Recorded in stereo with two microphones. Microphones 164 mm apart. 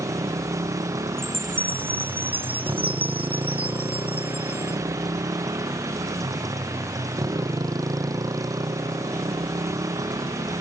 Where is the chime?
35° right (ahead or behind).